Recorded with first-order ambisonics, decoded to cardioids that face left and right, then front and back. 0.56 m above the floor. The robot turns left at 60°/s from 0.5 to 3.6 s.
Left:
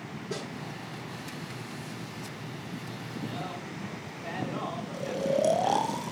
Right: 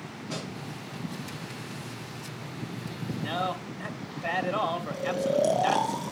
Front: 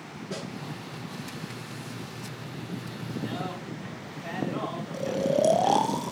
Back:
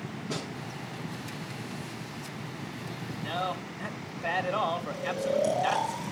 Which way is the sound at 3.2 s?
105° right.